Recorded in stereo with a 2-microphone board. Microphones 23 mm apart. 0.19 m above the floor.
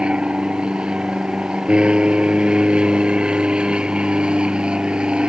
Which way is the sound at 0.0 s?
45° right (ahead or behind).